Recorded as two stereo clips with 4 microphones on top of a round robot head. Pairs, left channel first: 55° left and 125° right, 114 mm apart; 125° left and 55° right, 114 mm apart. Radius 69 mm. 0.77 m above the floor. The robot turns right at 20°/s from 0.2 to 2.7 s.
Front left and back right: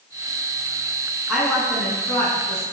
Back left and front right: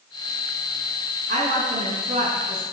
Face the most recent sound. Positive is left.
turn(degrees=-5)